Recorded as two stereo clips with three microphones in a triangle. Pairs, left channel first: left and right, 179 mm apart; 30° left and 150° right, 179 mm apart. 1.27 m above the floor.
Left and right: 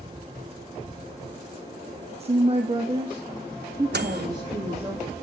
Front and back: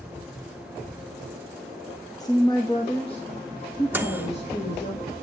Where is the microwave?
70° right, 1.0 m.